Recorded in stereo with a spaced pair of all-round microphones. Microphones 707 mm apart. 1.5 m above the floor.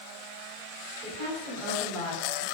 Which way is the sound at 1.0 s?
45° right (ahead or behind).